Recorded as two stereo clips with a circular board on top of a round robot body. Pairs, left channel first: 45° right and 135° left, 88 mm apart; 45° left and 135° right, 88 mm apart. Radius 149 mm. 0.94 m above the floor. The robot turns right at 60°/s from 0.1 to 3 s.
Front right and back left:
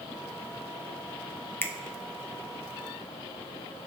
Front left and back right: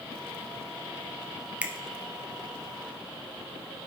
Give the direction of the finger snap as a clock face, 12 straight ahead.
3 o'clock.